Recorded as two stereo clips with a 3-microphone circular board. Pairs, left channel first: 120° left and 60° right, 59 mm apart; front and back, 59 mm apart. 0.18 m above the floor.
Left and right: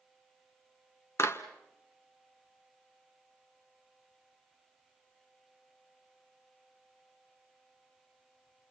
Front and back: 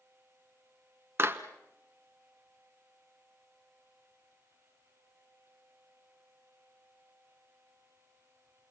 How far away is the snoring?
No snoring in this recording.